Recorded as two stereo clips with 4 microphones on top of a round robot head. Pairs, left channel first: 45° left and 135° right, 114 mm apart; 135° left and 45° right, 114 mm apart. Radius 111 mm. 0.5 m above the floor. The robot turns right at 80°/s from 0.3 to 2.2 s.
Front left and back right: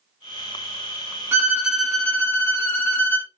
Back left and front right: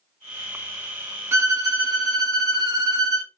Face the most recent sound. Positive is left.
turn(degrees=-15)